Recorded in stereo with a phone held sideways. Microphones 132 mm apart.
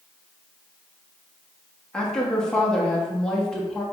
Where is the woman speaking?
5° left (ahead or behind), 1.3 m.